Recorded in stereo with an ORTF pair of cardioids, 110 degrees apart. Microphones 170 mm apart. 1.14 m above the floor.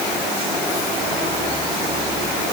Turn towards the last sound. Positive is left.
No sound to turn to.